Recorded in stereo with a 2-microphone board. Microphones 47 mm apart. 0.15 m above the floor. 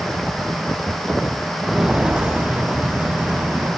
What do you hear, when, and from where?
1.6 s footsteps: 10° right (ahead or behind), 0.7 m; by 3.7 s 45° right (ahead or behind), 1.9 m